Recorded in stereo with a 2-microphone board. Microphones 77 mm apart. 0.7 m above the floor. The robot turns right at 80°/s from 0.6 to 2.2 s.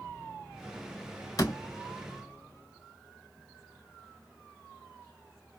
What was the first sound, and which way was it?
A door slam, 50° left (ahead or behind).